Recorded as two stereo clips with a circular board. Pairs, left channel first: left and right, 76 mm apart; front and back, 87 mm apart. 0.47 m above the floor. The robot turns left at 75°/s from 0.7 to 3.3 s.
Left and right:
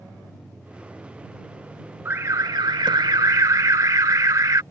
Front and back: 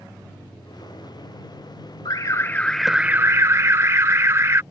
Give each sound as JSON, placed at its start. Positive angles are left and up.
{"t": 2.0, "sound": "an alarm", "azimuth_deg": -30}